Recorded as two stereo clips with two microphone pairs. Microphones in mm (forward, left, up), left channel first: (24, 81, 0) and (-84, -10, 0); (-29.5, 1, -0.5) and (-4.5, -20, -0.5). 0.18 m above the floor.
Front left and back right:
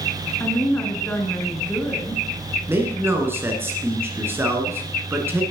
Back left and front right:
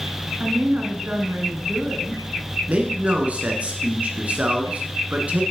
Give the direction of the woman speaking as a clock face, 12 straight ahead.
1 o'clock.